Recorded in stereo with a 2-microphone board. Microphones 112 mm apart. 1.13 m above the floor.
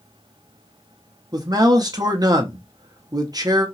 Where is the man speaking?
40° right (ahead or behind), 0.8 m.